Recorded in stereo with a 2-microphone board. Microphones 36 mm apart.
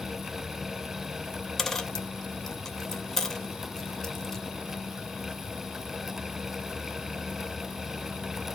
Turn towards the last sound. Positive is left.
turn(degrees=10)  # may be behind; listen again after turning